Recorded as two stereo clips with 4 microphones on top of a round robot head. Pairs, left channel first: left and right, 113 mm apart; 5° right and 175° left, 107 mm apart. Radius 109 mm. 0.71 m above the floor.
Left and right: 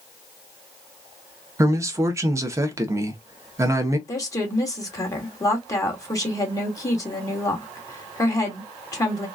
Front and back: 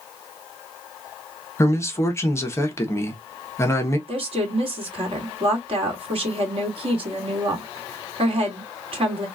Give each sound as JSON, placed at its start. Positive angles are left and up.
{"t": 1.6, "sound": "a man speaking", "azimuth_deg": -50, "distance_m": 0.9}
{"t": 4.1, "sound": "a woman speaking", "azimuth_deg": 150, "distance_m": 1.9}